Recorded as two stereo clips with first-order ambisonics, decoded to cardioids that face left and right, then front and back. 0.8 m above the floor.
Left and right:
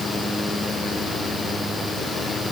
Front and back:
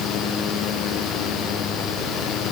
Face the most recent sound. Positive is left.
No sound to turn to.